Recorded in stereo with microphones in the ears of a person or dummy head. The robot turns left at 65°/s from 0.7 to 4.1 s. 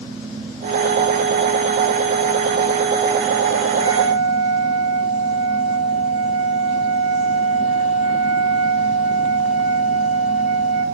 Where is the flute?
25° right (ahead or behind), 5 m; by 10.8 s 5° right (ahead or behind), 5 m.